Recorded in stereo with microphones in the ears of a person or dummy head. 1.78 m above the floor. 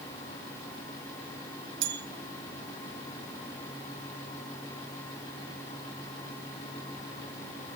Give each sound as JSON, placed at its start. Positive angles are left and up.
{"t": 1.8, "sound": "a bell", "side_deg": -50, "distance_m": 1.3}